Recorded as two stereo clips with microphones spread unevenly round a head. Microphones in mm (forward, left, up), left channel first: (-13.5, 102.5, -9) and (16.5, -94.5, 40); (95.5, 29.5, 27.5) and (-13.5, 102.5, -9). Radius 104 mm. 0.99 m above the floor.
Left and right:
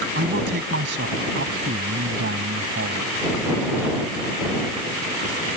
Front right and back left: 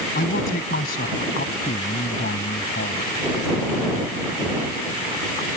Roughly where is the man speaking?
Ahead right.